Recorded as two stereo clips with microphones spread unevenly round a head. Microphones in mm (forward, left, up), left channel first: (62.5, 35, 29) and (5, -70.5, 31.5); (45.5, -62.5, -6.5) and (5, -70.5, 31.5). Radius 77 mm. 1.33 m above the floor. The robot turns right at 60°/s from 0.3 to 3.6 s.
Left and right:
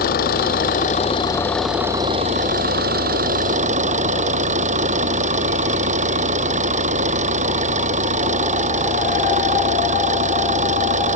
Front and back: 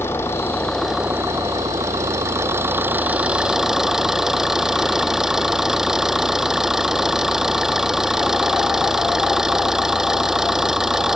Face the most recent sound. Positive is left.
turn(degrees=-90)